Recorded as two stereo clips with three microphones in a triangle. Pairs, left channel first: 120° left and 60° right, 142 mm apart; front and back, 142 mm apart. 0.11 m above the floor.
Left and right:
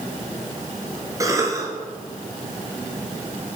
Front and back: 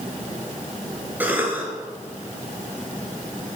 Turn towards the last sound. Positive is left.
turn(degrees=-110)